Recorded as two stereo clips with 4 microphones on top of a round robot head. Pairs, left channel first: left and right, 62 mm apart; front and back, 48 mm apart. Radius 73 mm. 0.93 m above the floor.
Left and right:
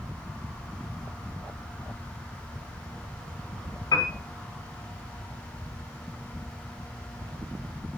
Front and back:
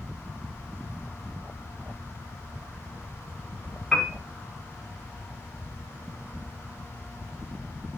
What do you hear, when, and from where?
3.9 s a piano: 95° left, 4 m